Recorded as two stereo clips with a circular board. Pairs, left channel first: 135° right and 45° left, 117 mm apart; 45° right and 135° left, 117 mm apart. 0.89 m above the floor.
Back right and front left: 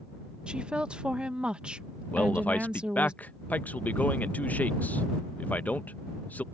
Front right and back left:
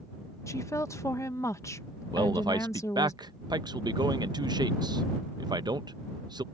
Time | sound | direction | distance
0.5 | a woman speaking | 25° right | ?
2.1 | a man speaking | 160° left | ?